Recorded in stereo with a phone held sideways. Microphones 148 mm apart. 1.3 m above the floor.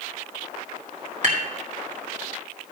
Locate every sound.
1.2 s dishes clattering: 55° right (ahead or behind), 2.5 m